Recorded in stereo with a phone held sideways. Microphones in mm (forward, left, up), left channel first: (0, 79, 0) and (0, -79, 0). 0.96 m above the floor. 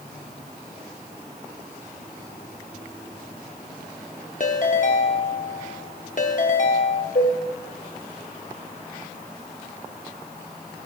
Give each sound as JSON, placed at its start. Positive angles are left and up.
{"t": 4.4, "sound": "a ringtone", "side_deg": 50, "distance_m": 0.8}
{"t": 7.2, "sound": "dishes clattering", "side_deg": 75, "distance_m": 3.5}